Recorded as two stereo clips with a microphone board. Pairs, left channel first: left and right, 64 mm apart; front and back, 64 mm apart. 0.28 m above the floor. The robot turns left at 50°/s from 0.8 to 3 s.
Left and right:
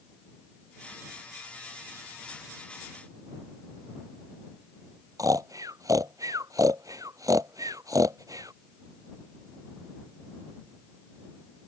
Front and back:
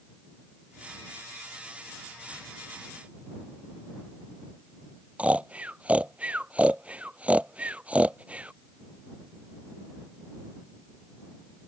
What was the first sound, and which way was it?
Snoring, 110° right.